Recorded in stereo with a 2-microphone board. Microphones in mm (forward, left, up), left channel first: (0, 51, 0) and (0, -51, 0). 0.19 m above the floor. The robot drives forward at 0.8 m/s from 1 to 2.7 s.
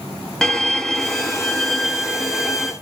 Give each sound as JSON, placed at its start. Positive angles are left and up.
{"t": 0.4, "sound": "a violin", "side_deg": 5, "distance_m": 0.7}